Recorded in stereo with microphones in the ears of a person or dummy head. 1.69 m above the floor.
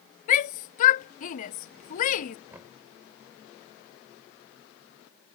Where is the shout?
40° left (ahead or behind).